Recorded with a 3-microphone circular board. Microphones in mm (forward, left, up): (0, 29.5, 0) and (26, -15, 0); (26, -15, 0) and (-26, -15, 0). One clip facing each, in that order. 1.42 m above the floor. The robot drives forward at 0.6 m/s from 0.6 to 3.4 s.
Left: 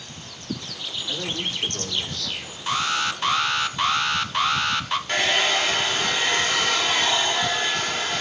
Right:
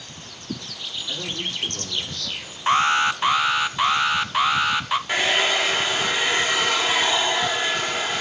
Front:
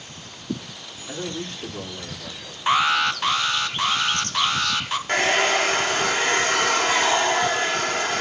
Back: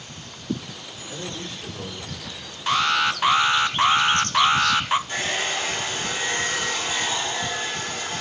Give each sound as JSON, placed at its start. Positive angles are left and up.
{"t": 1.1, "sound": "a man speaking", "azimuth_deg": 35, "distance_m": 4.5}
{"t": 2.7, "sound": "an alarm", "azimuth_deg": -55, "distance_m": 0.7}
{"t": 5.1, "sound": "a hair dryer", "azimuth_deg": 25, "distance_m": 1.7}